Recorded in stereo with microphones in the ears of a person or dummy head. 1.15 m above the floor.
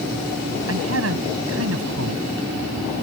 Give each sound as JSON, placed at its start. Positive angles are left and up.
{"t": 0.7, "sound": "a man speaking", "side_deg": -85}